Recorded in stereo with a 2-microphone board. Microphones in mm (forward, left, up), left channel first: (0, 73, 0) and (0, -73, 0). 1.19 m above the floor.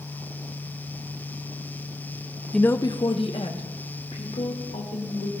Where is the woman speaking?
Centre (ahead or behind), 0.5 m; by 5.3 s 55° left (ahead or behind), 3.5 m.